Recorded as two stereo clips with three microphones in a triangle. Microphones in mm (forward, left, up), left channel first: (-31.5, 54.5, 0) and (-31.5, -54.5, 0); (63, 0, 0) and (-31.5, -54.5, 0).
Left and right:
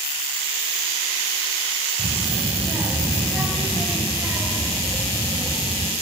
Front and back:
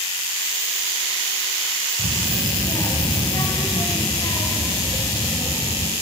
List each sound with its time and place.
2.0 s a child speaking: 15° right, 1.7 m